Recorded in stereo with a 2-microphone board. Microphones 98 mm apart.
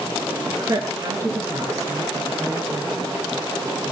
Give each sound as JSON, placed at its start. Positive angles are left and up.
{"t": 0.5, "sound": "a woman speaking", "side_deg": -35, "distance_m": 4.0}